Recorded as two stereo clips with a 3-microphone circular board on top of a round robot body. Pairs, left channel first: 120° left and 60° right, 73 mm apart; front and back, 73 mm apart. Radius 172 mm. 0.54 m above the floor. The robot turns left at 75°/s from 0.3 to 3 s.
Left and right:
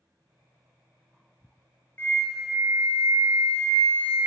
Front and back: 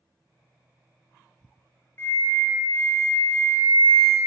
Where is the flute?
60° left, 0.7 m; by 4.2 s 20° right, 0.7 m.